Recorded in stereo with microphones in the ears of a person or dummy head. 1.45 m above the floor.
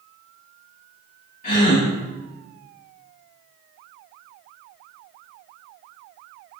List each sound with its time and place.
1.4 s a gasp: 45° left (ahead or behind), 1.8 m